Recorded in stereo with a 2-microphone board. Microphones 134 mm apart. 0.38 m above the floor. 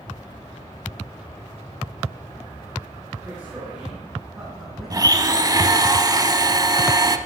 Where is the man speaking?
25° right (ahead or behind), 4.5 m; by 5.3 s 35° right (ahead or behind), 3 m.